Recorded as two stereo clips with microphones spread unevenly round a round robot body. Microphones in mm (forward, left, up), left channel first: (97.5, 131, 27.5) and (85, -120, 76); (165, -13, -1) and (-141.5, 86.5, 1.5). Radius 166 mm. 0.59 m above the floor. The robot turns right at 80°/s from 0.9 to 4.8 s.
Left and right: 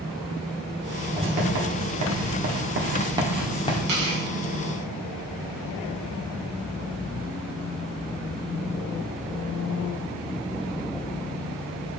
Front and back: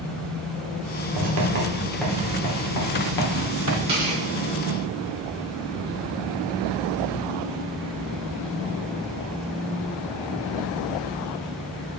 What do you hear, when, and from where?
1.2 s writing: 175° right, 1.6 m; by 3.8 s 35° left, 1.6 m
3.9 s tearing paper: 125° right, 4 m; by 4.2 s 100° right, 4 m